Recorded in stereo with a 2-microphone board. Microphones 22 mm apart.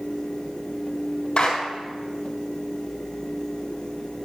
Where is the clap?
40° left (ahead or behind), 3.5 m.